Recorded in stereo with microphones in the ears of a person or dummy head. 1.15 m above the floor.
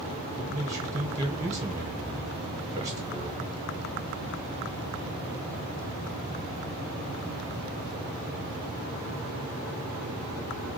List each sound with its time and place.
0.4 s a man speaking: 20° right (ahead or behind), 0.8 m